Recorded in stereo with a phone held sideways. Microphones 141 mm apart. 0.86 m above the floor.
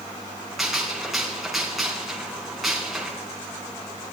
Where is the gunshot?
Centre (ahead or behind), 4 m.